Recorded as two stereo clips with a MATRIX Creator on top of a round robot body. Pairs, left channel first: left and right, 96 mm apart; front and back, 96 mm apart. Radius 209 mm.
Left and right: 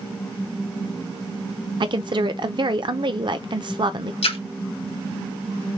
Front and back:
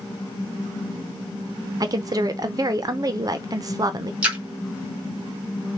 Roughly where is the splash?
Left.